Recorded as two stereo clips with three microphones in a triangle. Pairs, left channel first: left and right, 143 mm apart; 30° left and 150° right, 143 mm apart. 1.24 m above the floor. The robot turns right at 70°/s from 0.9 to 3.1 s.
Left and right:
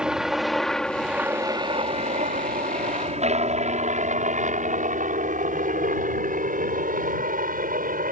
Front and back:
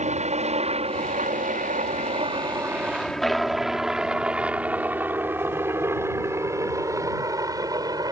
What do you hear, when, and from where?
0.0 s a helicopter: 175° right; by 8.1 s 90° right